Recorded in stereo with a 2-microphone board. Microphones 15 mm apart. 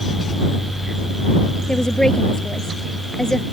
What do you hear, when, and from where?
1.7 s a woman speaking: 45° left (ahead or behind)